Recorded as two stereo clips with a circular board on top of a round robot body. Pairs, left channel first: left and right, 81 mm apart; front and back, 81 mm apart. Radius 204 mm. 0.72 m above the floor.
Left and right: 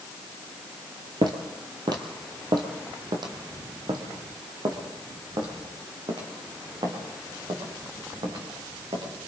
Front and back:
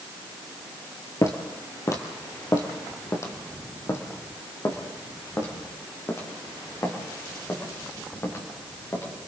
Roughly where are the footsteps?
Ahead right.